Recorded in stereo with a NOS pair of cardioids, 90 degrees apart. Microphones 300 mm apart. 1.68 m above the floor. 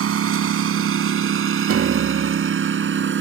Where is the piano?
50° right.